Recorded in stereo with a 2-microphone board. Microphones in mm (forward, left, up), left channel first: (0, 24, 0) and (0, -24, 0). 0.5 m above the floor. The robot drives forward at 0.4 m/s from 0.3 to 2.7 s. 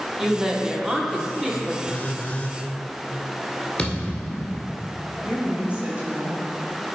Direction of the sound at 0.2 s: 10° right (ahead or behind).